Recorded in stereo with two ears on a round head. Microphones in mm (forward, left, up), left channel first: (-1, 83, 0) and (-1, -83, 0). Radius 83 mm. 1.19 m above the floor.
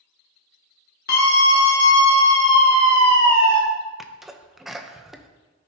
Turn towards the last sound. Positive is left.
turn(degrees=0)  # may be behind; listen again after turning